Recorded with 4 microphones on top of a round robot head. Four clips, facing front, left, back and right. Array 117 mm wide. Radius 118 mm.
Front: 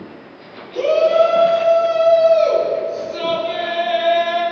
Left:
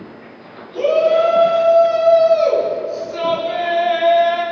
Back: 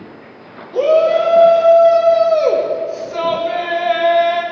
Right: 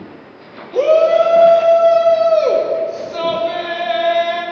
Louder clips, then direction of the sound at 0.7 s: Right 3 dB, back 2 dB; 120° right.